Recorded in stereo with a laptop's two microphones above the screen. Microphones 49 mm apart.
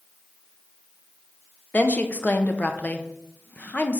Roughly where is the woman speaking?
Left.